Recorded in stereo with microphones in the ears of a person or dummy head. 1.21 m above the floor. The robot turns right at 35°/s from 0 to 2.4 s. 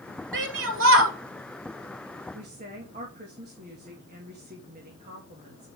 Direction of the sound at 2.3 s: 35° right (ahead or behind).